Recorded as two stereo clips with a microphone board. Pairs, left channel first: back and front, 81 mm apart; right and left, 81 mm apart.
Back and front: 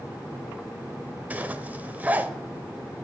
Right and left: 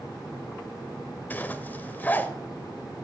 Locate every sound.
1.3 s a zipper: 50° right, 0.6 m